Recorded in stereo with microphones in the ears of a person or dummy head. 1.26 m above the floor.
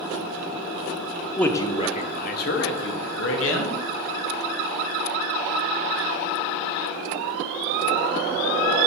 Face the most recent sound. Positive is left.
turn(degrees=75)  # may be behind; listen again after turning